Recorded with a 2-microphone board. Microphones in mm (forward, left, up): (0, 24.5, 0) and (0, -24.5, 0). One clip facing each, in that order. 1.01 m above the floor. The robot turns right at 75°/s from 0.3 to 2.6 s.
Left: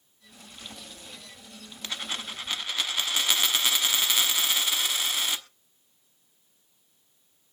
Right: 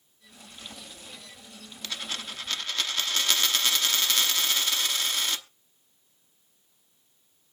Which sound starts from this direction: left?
A dropped coin, at 1.8 s.